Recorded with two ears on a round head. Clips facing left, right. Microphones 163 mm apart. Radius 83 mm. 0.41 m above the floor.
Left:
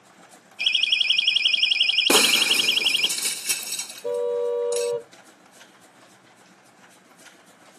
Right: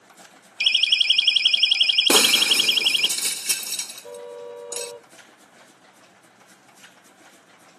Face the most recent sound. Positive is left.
turn(degrees=65)  # may be behind; listen again after turning